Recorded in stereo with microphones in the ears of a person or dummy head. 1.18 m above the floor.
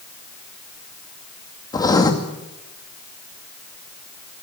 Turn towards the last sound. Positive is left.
turn(degrees=20)  # may be behind; listen again after turning